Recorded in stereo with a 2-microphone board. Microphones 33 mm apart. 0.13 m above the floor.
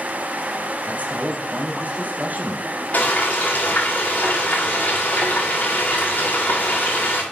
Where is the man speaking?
45° right (ahead or behind), 3.5 m.